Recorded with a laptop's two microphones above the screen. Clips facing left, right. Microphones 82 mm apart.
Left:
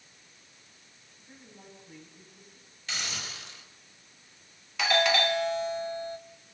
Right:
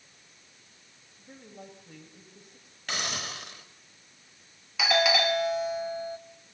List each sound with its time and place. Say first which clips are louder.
1.2 s a woman speaking: right 5 dB; 80° right, 6 m
2.9 s a hiss: right 4 dB; 55° right (ahead or behind), 5 m
4.8 s a doorbell: right 1 dB; 5° right (ahead or behind), 1.0 m